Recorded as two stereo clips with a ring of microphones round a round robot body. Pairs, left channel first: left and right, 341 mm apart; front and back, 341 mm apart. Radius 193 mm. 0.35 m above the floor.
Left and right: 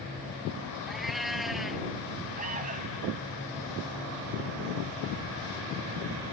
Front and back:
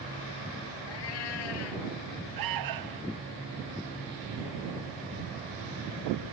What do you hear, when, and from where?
0.9 s a cat meowing: straight ahead
2.4 s an alarm: 160° right